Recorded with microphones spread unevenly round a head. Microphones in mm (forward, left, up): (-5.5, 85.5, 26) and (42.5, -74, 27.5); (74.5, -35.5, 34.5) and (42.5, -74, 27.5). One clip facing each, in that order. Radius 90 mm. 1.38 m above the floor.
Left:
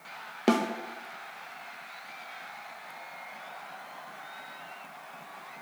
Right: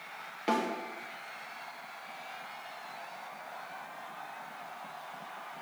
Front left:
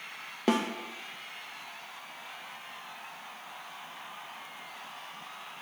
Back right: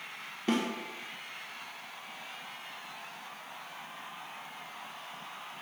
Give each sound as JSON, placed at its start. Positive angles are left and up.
{"t": 0.5, "sound": "a snare drum", "azimuth_deg": 75, "distance_m": 1.4}